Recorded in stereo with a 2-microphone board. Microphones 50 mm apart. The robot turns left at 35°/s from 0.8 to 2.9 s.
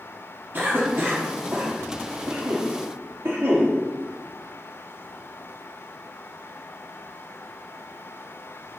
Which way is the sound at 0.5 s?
35° right (ahead or behind).